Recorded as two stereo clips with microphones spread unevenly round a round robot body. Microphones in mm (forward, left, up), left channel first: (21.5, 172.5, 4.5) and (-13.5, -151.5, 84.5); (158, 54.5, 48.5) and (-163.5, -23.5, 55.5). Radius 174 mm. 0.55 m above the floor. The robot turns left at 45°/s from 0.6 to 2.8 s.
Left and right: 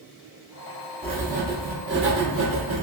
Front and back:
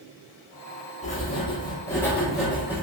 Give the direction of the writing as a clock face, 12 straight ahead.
12 o'clock.